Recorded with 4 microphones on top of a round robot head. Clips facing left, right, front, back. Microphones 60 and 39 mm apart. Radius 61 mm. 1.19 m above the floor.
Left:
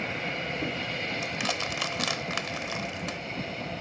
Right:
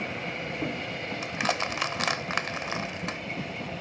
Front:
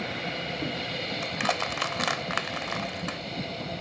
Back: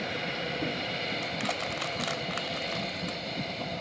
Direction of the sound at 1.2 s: 50° right.